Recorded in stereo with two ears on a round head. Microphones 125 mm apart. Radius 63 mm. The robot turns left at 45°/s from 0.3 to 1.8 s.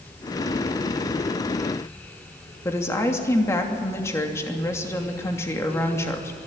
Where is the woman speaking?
20° left (ahead or behind), 2.5 m.